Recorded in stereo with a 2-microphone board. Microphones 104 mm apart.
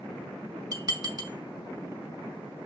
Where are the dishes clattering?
40° right (ahead or behind), 0.7 m.